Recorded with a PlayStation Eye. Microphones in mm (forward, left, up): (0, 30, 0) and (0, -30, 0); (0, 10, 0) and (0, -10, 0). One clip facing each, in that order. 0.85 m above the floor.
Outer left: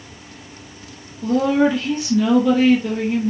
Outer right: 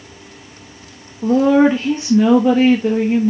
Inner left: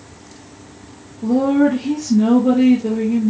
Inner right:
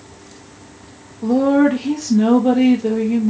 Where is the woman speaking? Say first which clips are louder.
Outer right 5 dB, inner right 1 dB; 30° right (ahead or behind), 0.9 m.